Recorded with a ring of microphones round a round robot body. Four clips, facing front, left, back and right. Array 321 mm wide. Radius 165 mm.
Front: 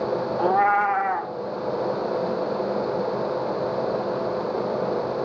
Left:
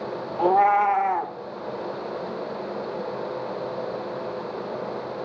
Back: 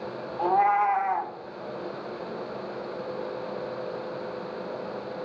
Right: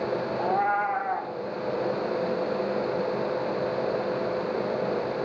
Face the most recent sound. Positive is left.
turn(degrees=65)